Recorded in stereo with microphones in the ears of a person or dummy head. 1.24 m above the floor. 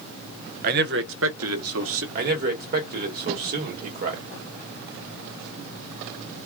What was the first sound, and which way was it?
A man speaking, 50° right (ahead or behind).